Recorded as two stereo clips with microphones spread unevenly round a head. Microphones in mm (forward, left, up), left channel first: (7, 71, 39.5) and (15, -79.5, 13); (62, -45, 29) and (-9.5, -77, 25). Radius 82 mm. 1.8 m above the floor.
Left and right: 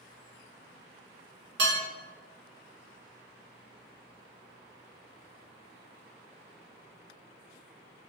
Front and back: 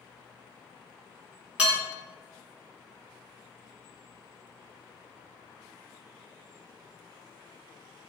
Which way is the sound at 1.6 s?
85° right.